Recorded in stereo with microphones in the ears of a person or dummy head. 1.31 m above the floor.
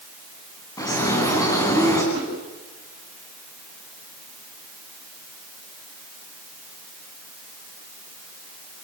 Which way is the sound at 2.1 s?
30° right (ahead or behind).